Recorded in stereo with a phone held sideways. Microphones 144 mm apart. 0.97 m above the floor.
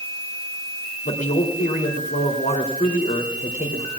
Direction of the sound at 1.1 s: 75° left (ahead or behind).